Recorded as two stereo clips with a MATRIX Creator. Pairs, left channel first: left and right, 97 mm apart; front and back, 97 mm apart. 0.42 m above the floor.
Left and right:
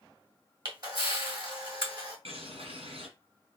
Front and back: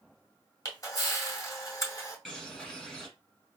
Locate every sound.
0.7 s a camera shutter: 50° right, 2.5 m
2.2 s a bird: 85° right, 1.9 m